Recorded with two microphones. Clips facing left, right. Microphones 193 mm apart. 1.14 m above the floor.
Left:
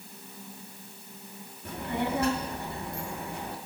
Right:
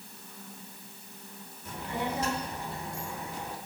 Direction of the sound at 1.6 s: 60° left (ahead or behind).